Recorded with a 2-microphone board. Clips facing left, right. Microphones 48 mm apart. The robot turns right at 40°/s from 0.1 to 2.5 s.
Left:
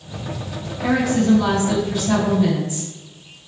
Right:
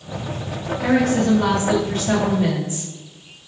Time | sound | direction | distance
0.8 | a woman speaking | 110° right | 0.9 m